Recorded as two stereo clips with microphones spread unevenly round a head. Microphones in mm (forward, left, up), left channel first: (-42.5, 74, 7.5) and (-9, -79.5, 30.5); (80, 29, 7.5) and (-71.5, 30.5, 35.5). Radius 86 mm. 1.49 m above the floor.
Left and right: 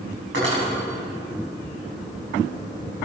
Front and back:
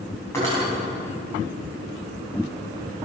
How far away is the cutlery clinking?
About 6.5 m.